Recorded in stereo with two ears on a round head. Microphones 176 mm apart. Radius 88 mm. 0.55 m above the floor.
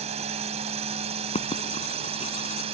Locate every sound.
0.0 s a drone: 35° right (ahead or behind); by 2.7 s 30° right (ahead or behind)
1.4 s writing: 35° left (ahead or behind)